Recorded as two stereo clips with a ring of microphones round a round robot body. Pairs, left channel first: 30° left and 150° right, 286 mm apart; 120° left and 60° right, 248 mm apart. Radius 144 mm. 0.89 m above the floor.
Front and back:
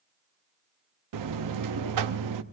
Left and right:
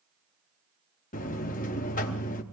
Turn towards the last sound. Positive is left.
turn(degrees=-175)